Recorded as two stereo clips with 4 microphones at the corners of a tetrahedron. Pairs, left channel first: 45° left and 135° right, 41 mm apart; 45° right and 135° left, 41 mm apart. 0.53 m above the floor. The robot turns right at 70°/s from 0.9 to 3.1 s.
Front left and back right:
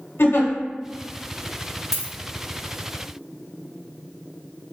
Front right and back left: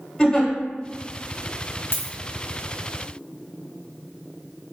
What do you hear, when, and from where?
0.2 s a giggle: 30° left, 0.8 m
1.9 s a dropped coin: 55° right, 1.1 m; by 2.1 s 40° right, 1.1 m